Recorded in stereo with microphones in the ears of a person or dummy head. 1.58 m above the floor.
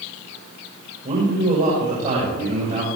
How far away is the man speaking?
About 7 m.